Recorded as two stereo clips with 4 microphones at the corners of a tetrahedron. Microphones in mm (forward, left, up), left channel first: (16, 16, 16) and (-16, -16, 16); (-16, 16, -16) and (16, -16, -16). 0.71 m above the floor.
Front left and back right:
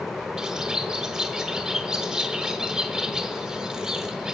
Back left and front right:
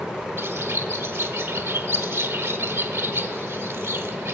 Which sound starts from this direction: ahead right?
A bird, at 0.4 s.